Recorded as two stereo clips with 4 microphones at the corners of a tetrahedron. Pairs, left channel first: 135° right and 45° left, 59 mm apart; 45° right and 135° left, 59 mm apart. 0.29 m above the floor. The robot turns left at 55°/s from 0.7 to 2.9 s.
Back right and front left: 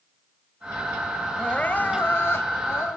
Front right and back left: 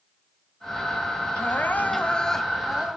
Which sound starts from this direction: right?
Crying, at 1.4 s.